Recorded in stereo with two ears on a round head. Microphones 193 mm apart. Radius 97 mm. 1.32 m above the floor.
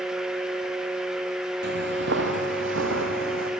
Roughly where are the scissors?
No scissors in this recording.